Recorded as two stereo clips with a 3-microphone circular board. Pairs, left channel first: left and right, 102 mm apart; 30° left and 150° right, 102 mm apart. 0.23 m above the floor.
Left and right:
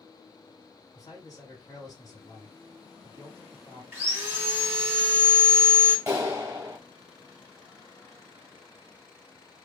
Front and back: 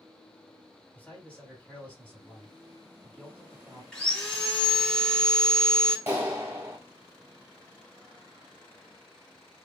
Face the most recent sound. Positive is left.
turn(degrees=-125)